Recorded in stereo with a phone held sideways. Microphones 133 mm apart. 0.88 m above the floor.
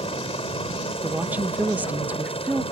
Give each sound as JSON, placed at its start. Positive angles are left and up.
{"t": 0.0, "sound": "a helicopter", "side_deg": 45}
{"t": 1.0, "sound": "a woman speaking", "side_deg": -15}